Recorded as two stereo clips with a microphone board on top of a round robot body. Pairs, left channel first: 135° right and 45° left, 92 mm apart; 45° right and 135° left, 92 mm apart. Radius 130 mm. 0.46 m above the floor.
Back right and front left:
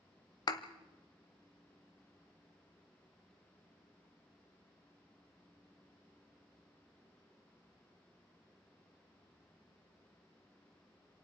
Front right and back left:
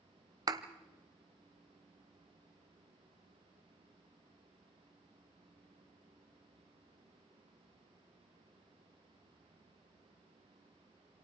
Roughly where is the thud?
Behind.